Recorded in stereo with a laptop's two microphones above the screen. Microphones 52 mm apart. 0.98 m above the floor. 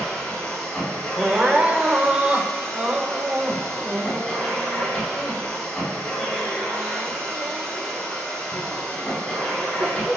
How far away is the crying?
About 2 m.